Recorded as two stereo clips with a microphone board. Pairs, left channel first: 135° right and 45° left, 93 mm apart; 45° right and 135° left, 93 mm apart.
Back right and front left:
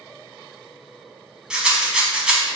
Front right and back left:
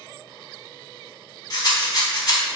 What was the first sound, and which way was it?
A rattle, 30° right.